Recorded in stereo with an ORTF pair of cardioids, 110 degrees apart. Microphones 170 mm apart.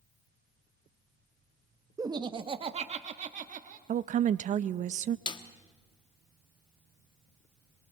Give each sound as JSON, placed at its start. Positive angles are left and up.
{"t": 2.0, "sound": "laughter", "azimuth_deg": -20, "distance_m": 0.9}
{"t": 3.9, "sound": "a woman speaking", "azimuth_deg": -50, "distance_m": 0.6}
{"t": 5.3, "sound": "a snare drum", "azimuth_deg": 25, "distance_m": 1.2}